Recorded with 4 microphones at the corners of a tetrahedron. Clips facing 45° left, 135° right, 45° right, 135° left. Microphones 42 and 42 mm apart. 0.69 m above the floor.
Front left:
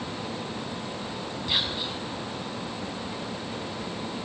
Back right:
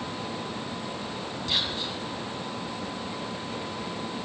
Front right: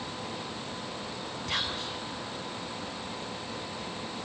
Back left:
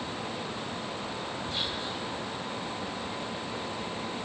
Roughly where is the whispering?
Ahead right.